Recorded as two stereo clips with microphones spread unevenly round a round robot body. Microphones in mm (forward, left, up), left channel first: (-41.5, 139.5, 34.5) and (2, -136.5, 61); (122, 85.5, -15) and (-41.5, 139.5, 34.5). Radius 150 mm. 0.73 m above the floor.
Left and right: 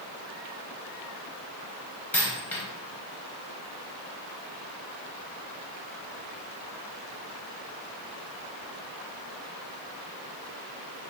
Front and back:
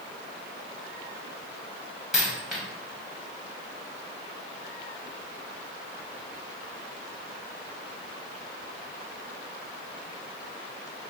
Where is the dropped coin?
170° right, 0.5 m.